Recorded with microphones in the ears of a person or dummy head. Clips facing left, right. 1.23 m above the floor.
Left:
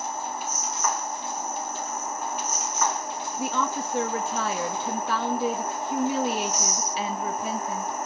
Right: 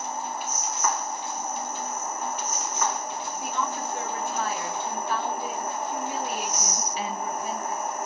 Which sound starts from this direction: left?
A woman speaking, at 3.4 s.